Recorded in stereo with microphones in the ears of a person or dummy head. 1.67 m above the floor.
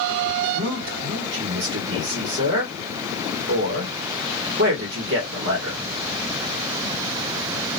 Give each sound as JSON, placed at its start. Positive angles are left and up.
{"t": 0.5, "sound": "a man speaking", "side_deg": -65, "distance_m": 1.0}